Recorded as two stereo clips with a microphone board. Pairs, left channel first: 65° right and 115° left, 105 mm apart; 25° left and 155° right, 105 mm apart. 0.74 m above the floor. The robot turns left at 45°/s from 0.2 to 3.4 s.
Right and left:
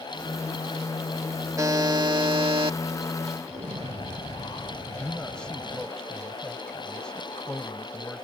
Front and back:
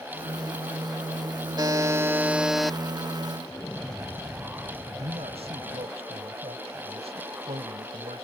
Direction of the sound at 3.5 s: 105° left.